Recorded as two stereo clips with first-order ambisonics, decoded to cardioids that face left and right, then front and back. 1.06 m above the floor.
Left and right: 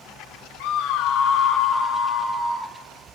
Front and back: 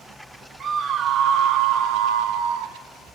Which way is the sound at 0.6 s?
115° left.